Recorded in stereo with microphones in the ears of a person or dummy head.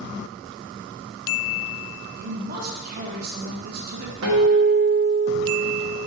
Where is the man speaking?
50° right (ahead or behind), 1.6 m.